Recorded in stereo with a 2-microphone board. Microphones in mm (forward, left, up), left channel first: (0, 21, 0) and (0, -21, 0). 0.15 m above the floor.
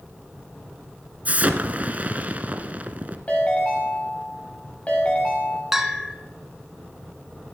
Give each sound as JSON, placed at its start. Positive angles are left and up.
{"t": 1.2, "sound": "an explosion", "side_deg": -35, "distance_m": 1.1}
{"t": 3.3, "sound": "a ringtone", "side_deg": 30, "distance_m": 6.5}
{"t": 5.7, "sound": "a bell", "side_deg": -10, "distance_m": 1.2}